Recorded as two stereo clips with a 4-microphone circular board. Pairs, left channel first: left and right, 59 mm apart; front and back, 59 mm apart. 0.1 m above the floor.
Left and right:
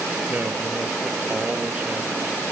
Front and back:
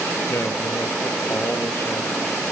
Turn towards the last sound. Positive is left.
turn(degrees=-25)